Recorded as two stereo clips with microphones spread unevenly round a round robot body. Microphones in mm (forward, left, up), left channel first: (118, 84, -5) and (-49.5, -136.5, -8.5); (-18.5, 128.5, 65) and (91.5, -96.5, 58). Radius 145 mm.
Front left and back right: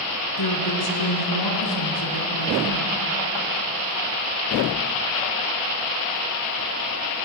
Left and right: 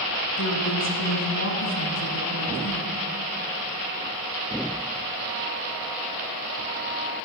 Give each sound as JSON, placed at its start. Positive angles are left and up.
{"t": 0.4, "sound": "a woman speaking", "azimuth_deg": 80, "distance_m": 4.0}